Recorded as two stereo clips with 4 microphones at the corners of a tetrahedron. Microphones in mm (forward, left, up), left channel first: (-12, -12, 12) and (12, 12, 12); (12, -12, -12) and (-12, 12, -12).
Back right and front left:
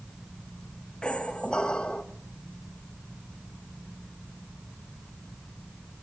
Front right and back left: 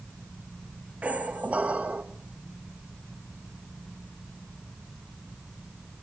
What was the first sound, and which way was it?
A squeak, 170° left.